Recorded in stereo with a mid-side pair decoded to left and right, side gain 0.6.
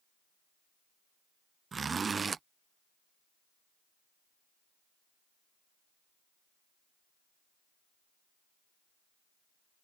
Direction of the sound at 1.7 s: 25° right.